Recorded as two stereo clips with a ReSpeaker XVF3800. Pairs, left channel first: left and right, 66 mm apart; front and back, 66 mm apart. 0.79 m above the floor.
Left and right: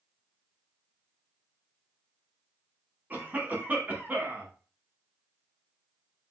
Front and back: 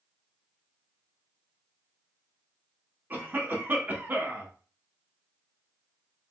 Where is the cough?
135° right, 1.0 m.